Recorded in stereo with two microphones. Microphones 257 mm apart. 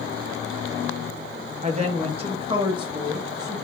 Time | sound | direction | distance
1.6 | a woman speaking | 30° right (ahead or behind) | 0.6 m